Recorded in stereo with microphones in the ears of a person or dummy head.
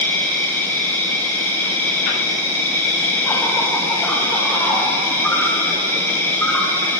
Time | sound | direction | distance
0.0 | an insect | 10° left (ahead or behind) | 0.7 m